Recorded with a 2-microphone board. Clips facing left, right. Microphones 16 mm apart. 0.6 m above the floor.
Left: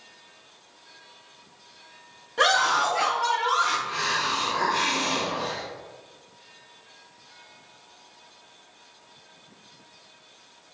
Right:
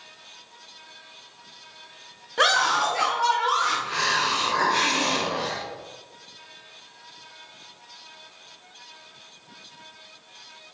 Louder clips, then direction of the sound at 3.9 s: Right 2 dB; 30° right (ahead or behind).